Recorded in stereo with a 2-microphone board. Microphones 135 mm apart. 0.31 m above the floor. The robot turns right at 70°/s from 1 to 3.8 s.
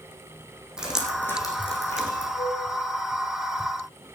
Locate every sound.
0.8 s dripping: 5° right (ahead or behind), 3 m; by 2.2 s 80° left, 3 m
2.4 s a flute: 35° left (ahead or behind), 1.6 m; by 2.6 s 20° left (ahead or behind), 1.6 m